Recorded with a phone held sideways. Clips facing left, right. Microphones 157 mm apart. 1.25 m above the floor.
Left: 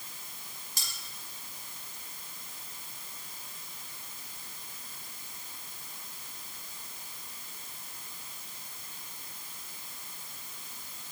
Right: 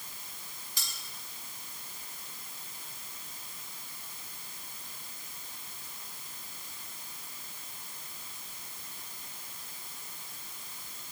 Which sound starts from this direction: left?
Cutlery clinking, at 0.8 s.